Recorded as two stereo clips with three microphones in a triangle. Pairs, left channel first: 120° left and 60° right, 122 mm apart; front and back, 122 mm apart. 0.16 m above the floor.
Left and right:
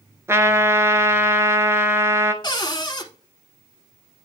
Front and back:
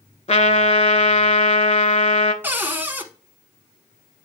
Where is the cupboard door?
120° left, 0.8 m.